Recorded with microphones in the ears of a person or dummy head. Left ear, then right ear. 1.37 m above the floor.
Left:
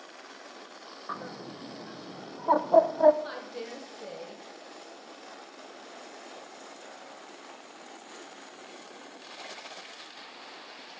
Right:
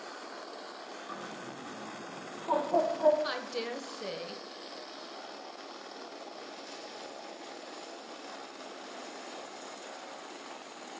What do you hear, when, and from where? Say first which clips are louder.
1.1 s a bird: left 6 dB; 70° left (ahead or behind), 0.5 m
3.2 s a woman speaking: right 3 dB; 25° right (ahead or behind), 0.9 m